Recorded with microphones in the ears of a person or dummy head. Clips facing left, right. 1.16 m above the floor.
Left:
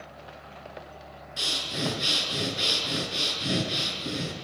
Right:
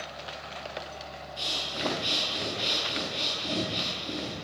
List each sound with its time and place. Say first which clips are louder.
1.4 s breathing: left 3 dB; 75° left (ahead or behind), 7 m